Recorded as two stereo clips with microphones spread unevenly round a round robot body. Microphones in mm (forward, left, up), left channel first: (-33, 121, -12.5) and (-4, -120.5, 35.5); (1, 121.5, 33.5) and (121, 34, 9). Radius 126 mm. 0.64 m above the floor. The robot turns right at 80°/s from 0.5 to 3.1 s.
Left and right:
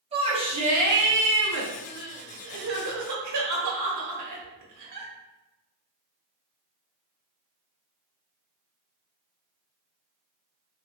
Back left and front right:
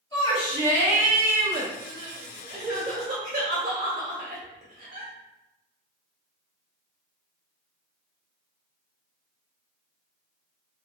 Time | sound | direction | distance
0.1 | a shout | 150° right | 1.2 m
1.9 | crying | 175° right | 1.2 m